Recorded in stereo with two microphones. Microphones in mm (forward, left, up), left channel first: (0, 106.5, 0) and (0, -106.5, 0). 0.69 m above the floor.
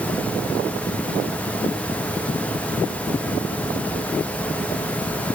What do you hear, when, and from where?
Only background noise.